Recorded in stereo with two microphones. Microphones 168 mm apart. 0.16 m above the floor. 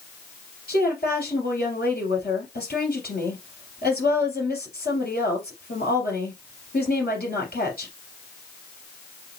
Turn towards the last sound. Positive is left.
turn(degrees=70)  # may be behind; listen again after turning